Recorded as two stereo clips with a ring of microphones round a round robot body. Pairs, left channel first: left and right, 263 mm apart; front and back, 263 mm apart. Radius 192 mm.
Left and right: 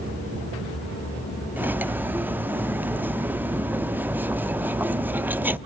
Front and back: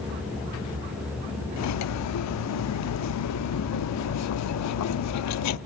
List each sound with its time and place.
1.6 s cutlery clinking: 5° right, 0.8 m